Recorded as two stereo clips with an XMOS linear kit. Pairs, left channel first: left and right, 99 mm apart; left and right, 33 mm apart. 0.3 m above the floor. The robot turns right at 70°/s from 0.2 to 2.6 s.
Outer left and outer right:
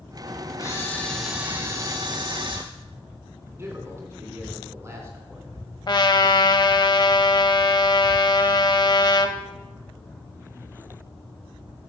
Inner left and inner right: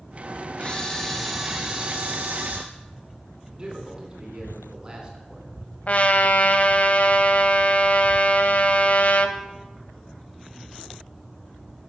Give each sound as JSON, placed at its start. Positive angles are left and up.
{"t": 0.6, "sound": "a camera shutter", "azimuth_deg": 135, "distance_m": 2.0}
{"t": 3.5, "sound": "a man speaking", "side_deg": -25, "distance_m": 2.5}
{"t": 5.9, "sound": "a trumpet", "side_deg": 50, "distance_m": 0.7}